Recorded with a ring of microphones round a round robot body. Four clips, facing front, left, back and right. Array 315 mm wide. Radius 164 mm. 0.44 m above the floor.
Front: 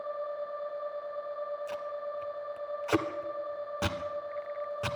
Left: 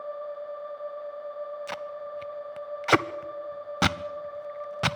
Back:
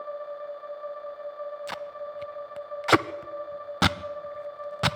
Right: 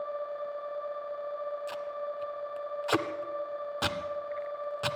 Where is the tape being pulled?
140° left, 0.6 m.